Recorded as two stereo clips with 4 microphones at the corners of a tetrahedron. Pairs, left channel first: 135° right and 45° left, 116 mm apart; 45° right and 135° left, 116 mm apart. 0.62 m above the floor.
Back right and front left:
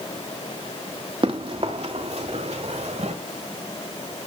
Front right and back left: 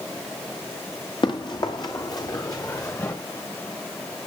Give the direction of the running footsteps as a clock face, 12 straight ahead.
12 o'clock.